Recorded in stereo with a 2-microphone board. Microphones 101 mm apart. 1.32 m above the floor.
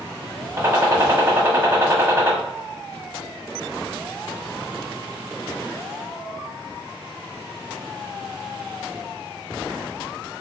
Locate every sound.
0.6 s a gunshot: 25° right (ahead or behind), 0.9 m